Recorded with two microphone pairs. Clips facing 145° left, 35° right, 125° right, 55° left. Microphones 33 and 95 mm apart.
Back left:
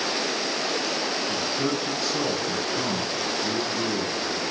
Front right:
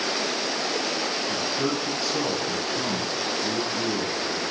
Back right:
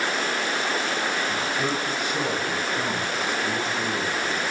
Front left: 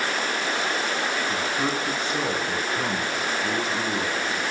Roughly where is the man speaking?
Ahead left.